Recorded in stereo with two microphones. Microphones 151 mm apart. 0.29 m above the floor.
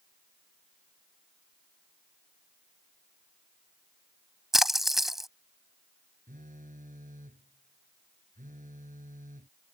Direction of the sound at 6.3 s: 65° right (ahead or behind).